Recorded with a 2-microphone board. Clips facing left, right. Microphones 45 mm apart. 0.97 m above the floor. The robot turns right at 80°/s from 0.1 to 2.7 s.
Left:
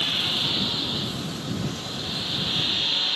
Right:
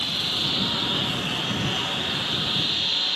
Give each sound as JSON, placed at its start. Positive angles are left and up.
{"t": 0.0, "sound": "a lawn mower", "azimuth_deg": 155}